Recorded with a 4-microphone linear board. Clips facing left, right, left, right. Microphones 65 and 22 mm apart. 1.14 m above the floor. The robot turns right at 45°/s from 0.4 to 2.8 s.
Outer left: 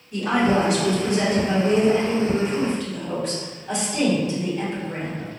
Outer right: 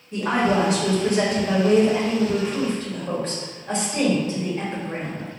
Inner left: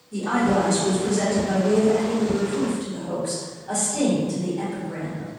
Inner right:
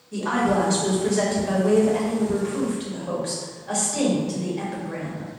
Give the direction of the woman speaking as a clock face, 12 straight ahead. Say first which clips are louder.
Outer left 1 dB, inner left 1 dB; 5 o'clock.